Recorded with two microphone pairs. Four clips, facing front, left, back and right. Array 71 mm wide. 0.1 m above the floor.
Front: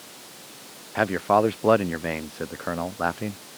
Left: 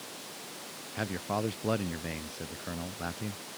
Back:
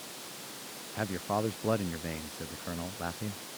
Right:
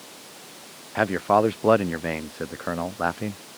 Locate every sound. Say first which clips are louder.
0.9 s a man speaking: right 13 dB, front 12 dB; 45° right